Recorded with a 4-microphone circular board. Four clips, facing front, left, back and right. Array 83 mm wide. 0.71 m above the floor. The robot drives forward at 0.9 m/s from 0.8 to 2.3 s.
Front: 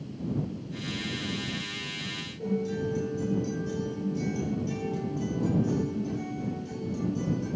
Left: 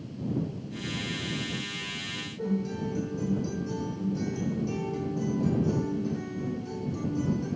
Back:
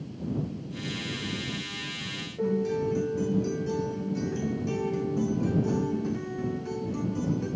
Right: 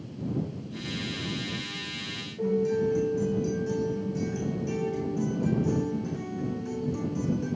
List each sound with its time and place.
2.4 s a guitar: 170° right, 3.5 m